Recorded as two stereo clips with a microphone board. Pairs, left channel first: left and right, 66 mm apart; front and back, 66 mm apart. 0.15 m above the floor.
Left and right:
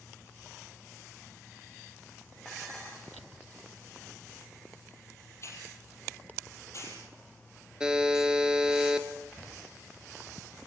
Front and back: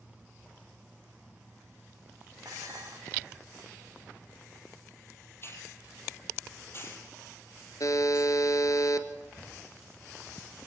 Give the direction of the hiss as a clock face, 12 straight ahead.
10 o'clock.